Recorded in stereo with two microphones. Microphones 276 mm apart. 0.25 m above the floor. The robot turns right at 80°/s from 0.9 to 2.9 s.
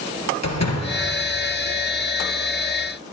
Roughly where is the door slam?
Left.